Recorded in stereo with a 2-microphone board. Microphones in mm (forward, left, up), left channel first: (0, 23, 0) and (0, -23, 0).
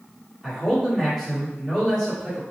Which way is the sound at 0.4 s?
5° left (ahead or behind).